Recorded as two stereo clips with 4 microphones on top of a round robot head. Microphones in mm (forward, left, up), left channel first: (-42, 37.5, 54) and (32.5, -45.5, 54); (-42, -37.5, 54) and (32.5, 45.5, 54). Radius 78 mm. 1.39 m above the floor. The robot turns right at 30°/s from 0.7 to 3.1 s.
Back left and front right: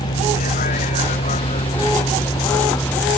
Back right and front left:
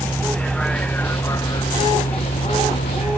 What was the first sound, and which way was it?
A vehicle, 145° left.